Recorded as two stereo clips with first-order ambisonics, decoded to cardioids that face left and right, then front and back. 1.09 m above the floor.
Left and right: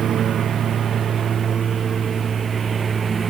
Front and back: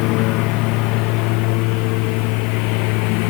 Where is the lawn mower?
30° right; by 3.3 s 15° right.